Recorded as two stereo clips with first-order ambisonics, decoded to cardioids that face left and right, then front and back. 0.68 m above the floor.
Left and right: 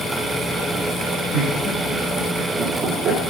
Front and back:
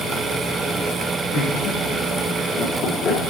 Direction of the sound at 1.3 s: 15° left.